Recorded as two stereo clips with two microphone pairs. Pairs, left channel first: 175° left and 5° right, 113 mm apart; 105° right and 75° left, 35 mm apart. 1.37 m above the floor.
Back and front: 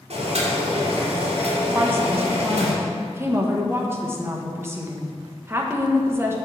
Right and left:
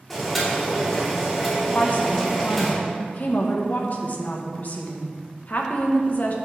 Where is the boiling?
20° right, 3 m.